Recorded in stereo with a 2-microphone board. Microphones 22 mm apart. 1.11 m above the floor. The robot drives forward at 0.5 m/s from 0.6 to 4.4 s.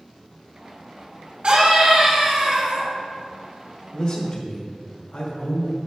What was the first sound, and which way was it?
A scream, 55° right (ahead or behind).